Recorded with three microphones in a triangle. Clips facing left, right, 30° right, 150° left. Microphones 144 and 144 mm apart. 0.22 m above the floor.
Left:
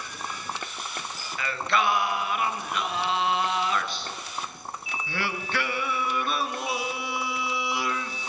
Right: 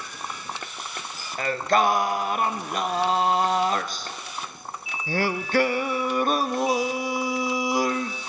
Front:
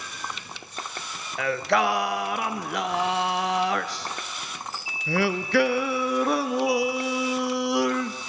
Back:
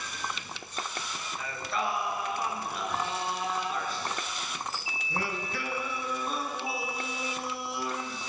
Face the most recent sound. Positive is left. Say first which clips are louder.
# right 5 dB, front 11 dB
turn(degrees=-40)